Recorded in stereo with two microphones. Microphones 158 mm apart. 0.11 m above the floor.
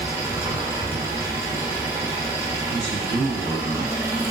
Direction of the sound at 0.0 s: 20° right (ahead or behind).